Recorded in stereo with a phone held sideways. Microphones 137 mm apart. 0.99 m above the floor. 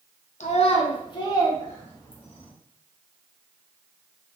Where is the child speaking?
60° left (ahead or behind), 0.7 m; by 2.5 s 10° left (ahead or behind), 1.4 m.